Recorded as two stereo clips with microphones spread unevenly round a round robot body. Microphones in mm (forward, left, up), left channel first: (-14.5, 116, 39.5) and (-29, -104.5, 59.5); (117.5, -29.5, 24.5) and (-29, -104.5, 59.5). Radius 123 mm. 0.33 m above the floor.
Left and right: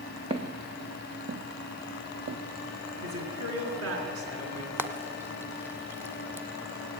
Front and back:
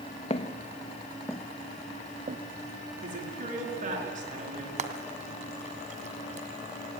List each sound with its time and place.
0.3 s footsteps: 30° right, 1.2 m; by 2.4 s 130° right, 0.6 m
3.0 s a man speaking: 110° right, 6 m
4.8 s frying: 175° right, 1.6 m